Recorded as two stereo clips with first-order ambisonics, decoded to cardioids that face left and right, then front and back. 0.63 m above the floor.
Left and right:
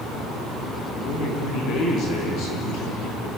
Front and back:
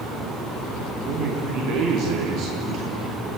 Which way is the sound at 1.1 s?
140° left.